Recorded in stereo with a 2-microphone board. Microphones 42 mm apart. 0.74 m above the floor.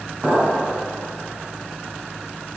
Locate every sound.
0.2 s a clink: 45° right (ahead or behind), 3 m